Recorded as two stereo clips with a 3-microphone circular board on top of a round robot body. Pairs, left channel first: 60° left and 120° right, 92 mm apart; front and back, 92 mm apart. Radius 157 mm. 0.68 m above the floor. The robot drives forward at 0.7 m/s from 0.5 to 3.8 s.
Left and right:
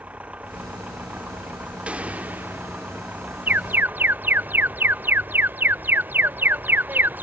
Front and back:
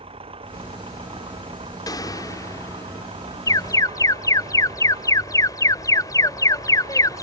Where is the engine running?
165° left.